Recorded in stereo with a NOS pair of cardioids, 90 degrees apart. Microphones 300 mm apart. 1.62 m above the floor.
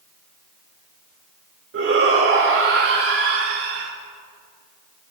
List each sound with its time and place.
1.7 s a shout: 45° right, 4 m